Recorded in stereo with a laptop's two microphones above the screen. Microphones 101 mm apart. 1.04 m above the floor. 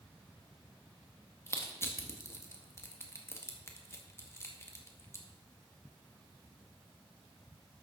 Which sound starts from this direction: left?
Crushing, at 1.5 s.